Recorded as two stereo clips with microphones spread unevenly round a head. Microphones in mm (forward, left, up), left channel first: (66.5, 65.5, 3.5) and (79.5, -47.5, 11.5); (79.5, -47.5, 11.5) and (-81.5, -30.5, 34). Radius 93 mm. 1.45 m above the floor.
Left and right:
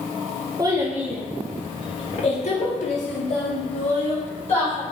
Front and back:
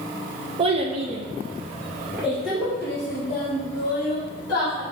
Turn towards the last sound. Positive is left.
turn(degrees=75)